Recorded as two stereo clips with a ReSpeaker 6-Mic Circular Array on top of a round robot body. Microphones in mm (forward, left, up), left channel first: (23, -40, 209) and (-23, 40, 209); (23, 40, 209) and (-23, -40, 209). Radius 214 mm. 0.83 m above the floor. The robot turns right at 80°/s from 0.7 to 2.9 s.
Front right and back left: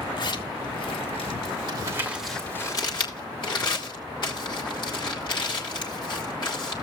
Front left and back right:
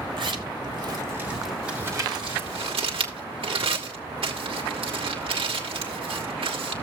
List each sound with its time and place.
0.2 s a zipper: 95° right, 1.6 m; by 1.6 s 25° right, 1.6 m
1.7 s crumpling: 160° left, 2.0 m; by 6.7 s 100° right, 2.0 m